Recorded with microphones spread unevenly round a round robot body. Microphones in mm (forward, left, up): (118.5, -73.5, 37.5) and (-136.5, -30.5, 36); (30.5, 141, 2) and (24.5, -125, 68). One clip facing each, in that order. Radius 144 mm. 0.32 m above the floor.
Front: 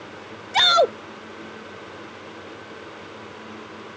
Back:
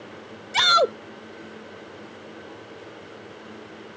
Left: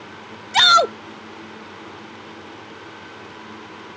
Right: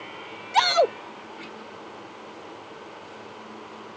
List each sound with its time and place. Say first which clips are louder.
0.5 s a shout: front 3 dB, even; 100° left